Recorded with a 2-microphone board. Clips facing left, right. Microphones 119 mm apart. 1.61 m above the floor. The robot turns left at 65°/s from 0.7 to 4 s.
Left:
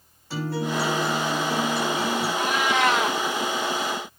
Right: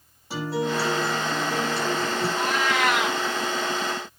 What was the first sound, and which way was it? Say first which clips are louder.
A guitar: right 1 dB; 165° right.